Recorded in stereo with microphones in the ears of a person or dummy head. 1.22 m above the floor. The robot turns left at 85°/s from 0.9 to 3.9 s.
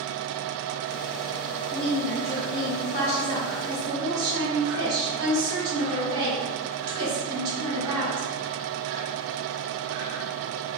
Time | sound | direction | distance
1.7 | a woman speaking | 160° left | 1.4 m